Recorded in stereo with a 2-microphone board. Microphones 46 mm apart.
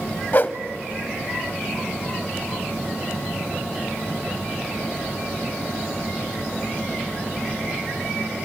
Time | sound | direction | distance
0.3 | a whoosh | 45° left (ahead or behind) | 0.7 m